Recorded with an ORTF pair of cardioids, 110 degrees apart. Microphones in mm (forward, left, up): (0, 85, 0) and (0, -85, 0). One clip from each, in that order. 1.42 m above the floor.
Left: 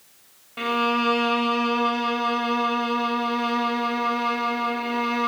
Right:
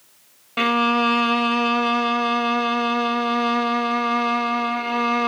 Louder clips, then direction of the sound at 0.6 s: Right 4 dB; 45° right.